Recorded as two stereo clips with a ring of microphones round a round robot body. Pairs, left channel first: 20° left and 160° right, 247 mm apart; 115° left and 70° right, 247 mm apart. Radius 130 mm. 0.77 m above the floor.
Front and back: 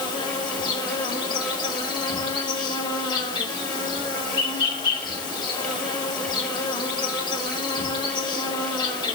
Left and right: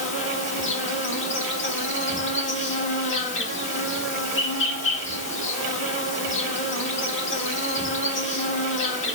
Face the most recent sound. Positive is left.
turn(degrees=90)